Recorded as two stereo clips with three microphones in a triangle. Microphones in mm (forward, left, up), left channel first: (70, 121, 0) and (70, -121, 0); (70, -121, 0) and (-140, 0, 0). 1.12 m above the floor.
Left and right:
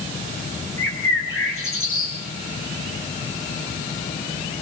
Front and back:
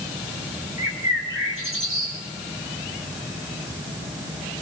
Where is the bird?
120° left, 3.5 m.